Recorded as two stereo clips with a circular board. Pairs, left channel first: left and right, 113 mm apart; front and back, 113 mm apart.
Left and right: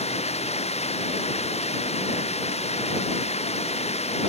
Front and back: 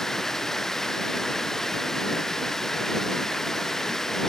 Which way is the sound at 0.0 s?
85° left.